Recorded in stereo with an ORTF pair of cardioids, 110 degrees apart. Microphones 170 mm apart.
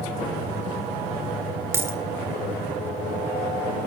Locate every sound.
1.7 s a dropped coin: 15° right, 2.5 m